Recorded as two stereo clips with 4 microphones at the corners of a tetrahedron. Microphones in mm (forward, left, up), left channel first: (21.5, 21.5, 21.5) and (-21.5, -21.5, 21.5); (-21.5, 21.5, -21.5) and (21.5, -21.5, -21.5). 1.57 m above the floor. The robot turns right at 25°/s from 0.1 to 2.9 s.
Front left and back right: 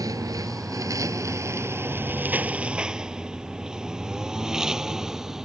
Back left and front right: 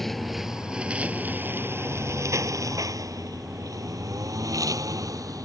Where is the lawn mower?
140° right; by 5.5 s 55° right.